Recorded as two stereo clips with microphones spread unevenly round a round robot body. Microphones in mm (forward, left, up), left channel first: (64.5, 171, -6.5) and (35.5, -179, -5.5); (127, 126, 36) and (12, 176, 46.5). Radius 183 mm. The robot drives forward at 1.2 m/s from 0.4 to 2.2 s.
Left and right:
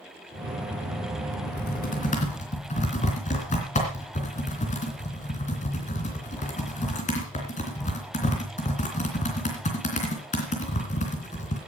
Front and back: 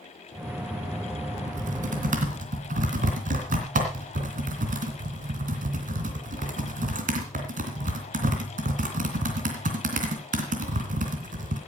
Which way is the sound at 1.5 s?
145° left.